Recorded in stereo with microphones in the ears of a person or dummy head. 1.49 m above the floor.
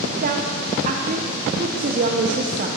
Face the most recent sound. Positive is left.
turn(degrees=-45)  # may be behind; listen again after turning